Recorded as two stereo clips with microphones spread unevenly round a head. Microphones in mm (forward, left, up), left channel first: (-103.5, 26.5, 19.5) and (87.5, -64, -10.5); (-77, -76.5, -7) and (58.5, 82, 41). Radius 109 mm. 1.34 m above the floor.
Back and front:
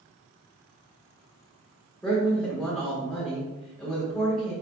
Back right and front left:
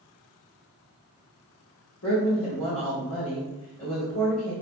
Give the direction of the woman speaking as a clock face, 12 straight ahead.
4 o'clock.